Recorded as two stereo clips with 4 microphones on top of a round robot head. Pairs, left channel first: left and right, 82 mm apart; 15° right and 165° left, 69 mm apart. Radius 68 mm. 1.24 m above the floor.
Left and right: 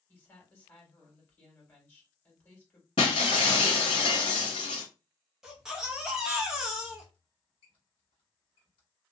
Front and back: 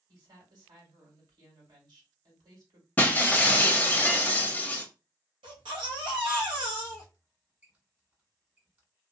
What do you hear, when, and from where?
0.1 s a woman speaking: 155° left, 1.8 m
3.0 s breaking glass: 55° left, 0.6 m
5.4 s a baby crying: 175° right, 0.8 m
7.1 s a squeak: 105° left, 1.5 m